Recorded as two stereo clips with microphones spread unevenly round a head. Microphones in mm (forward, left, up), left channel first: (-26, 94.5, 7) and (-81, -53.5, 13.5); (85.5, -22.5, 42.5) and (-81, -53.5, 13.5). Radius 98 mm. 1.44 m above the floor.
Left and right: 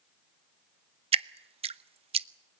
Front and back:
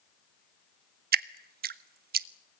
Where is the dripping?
145° right, 0.8 m.